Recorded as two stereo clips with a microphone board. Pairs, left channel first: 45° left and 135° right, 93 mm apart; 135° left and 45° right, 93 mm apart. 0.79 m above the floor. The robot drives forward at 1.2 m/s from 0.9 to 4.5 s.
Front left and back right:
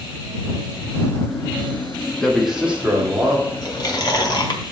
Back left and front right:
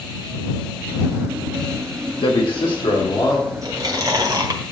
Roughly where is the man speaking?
Behind left.